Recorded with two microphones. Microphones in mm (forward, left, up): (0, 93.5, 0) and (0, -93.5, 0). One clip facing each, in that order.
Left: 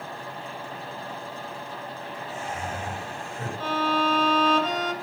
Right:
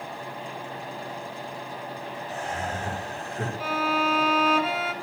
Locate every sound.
2.3 s laughter: 75° right (ahead or behind), 6.5 m
3.6 s a violin: 10° right (ahead or behind), 2.5 m